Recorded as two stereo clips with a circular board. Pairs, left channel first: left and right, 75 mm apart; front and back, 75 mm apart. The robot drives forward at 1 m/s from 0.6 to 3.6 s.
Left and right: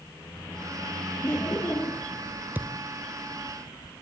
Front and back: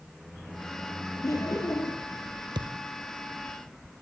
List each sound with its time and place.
1.2 s laughter: 35° left, 3.5 m; by 2.1 s 45° left, 3 m
2.5 s a thud: 160° right, 1.5 m